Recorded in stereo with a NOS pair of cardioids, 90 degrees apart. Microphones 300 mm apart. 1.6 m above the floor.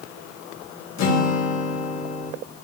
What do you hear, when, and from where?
1.0 s a guitar: 65° left, 3 m